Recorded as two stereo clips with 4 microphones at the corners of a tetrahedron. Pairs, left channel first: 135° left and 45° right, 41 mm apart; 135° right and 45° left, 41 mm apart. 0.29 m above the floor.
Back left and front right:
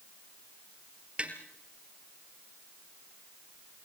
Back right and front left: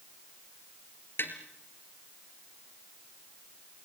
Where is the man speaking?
No man speaking in this recording.